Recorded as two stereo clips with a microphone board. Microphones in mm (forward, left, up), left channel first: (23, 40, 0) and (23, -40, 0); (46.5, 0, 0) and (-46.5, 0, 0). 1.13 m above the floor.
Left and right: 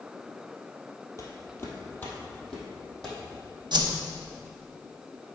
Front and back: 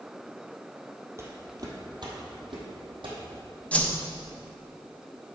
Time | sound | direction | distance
1.2 | footsteps | 130° left | 1.9 m
3.7 | a whoosh | 75° right | 0.9 m